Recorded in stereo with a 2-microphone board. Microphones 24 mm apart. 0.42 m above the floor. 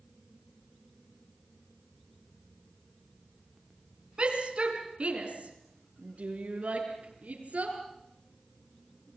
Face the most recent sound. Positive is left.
turn(degrees=-70)  # may be behind; listen again after turning